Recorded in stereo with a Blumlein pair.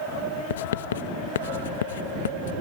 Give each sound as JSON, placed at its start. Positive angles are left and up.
{"t": 0.5, "sound": "writing", "azimuth_deg": 60}